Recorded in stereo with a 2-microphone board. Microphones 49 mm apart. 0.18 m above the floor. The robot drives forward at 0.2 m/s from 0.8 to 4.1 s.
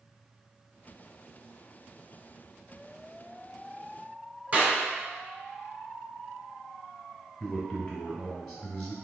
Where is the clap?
35° right (ahead or behind), 1.0 m.